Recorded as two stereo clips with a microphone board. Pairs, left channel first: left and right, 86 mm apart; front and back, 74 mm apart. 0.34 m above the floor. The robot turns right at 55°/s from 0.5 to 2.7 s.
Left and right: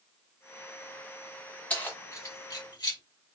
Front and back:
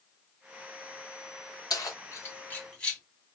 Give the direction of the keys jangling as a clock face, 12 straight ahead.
11 o'clock.